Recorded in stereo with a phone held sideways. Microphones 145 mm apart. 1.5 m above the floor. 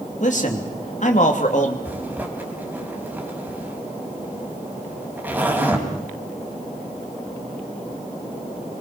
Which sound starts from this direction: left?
A man speaking, at 0.2 s.